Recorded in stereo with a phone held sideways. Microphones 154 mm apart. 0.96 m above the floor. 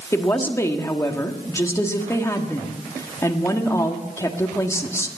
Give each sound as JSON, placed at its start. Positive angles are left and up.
{"t": 0.1, "sound": "a woman speaking", "side_deg": 20, "distance_m": 1.5}